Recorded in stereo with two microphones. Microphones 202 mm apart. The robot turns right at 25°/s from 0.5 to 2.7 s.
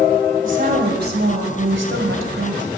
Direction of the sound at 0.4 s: 135° right.